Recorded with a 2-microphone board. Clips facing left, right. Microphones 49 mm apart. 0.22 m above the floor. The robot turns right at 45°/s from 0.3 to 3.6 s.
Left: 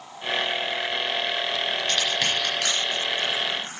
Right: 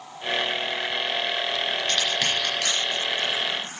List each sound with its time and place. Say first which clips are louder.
1.9 s crushing: even; centre (ahead or behind), 3.5 m; by 3.8 s 60° left (ahead or behind), 3.5 m